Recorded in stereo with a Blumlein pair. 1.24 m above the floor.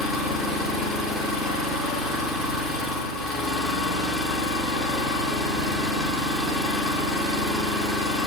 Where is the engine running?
15° left, 2 m.